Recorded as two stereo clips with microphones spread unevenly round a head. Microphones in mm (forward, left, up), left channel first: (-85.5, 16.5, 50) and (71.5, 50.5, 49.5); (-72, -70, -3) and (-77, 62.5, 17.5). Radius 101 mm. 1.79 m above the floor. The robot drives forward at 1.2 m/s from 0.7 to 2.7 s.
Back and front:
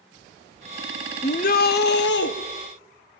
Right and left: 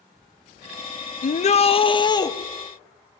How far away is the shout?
About 1.1 m.